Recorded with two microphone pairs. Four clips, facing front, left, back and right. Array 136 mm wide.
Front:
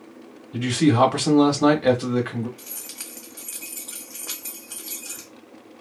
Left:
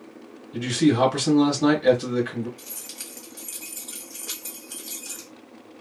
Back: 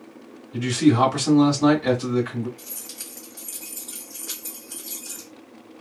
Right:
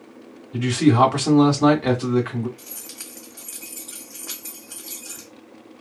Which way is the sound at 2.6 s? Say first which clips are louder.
Right 1 dB, even; 10° right.